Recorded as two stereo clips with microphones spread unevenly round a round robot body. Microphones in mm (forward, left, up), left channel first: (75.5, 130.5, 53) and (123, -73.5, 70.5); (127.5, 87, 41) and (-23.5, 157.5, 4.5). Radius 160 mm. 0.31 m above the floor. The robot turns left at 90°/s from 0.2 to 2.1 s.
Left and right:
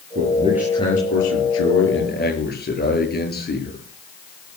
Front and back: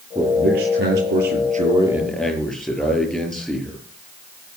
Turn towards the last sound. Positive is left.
turn(degrees=60)